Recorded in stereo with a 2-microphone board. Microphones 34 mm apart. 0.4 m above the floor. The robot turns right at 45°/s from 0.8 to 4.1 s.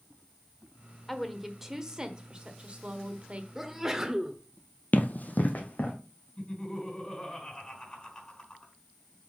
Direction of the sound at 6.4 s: 30° left (ahead or behind).